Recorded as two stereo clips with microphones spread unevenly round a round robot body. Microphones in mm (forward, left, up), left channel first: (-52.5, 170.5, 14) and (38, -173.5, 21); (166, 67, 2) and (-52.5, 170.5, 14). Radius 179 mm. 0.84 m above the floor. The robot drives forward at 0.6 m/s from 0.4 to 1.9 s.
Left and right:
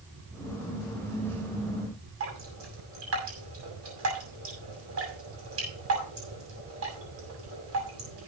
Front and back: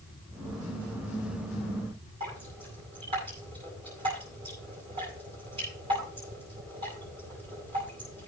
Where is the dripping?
130° right, 6.5 m.